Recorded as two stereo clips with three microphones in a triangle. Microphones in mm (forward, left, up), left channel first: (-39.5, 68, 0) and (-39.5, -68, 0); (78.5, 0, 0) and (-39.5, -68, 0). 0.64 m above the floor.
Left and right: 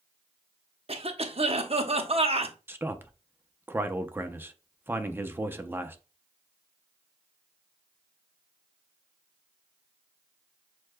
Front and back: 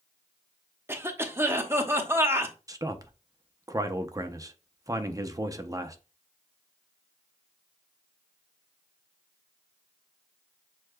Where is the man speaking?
140° right, 0.6 m.